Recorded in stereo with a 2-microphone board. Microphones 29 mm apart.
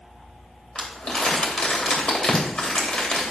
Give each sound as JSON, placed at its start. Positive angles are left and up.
{"t": 0.8, "sound": "crumpling", "side_deg": 35, "distance_m": 2.5}